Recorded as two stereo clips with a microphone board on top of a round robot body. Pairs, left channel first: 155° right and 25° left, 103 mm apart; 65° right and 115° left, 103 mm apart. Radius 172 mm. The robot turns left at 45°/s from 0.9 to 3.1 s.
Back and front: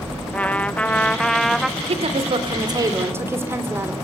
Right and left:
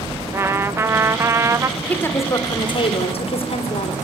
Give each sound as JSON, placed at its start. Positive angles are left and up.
{"t": 0.3, "sound": "a trumpet", "azimuth_deg": 145, "distance_m": 1.1}
{"t": 1.8, "sound": "a woman speaking", "azimuth_deg": 15, "distance_m": 3.0}